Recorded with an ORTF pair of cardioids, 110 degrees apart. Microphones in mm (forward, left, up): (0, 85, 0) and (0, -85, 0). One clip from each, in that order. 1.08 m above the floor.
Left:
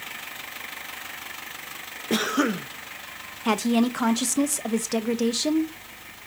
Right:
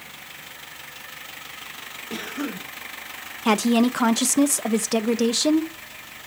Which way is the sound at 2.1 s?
55° left.